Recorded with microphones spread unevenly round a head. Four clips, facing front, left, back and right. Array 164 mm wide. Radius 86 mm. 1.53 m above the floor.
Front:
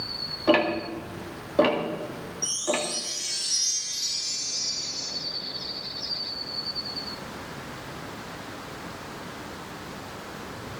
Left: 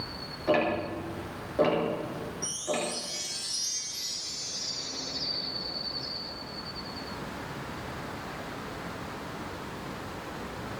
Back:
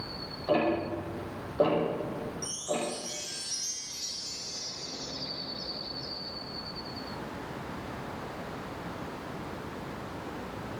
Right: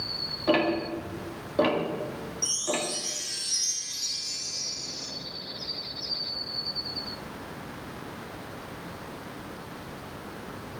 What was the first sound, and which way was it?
Ticking, 15° right.